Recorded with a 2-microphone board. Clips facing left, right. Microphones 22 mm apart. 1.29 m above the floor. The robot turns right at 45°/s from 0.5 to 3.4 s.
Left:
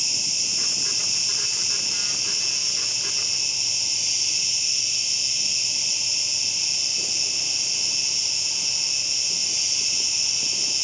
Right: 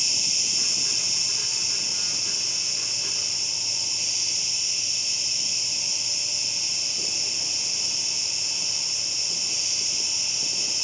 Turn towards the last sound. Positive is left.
turn(degrees=120)